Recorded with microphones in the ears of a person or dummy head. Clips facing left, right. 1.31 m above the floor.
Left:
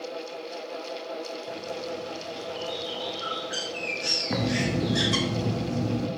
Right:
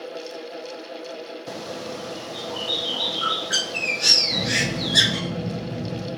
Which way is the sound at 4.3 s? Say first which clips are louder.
Left 2 dB; 65° left (ahead or behind).